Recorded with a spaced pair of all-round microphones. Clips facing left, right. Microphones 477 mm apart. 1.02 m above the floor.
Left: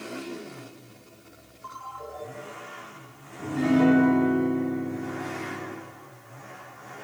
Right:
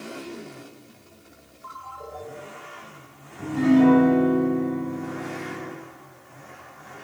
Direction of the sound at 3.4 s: 20° right (ahead or behind).